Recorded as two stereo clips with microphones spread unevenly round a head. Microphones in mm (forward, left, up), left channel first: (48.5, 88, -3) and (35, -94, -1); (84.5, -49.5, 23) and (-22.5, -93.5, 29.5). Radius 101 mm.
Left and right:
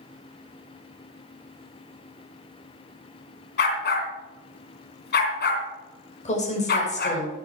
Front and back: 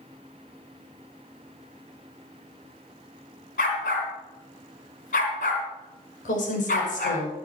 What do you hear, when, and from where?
3.6 s a dog barking: 55° left, 3 m
6.2 s a woman speaking: 35° left, 5.5 m